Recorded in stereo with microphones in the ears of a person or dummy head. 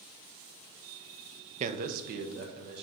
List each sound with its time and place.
1.6 s a man speaking: 40° right (ahead or behind), 0.7 m; by 2.8 s 60° right (ahead or behind), 2 m